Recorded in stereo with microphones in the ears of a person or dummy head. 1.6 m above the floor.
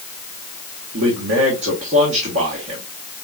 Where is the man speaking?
60° right (ahead or behind), 1.5 m.